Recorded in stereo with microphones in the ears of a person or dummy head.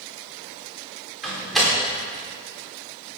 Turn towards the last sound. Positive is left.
turn(degrees=0)  # may be behind; listen again after turning